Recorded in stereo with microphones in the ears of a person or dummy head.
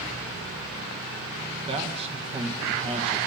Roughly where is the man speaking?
Right.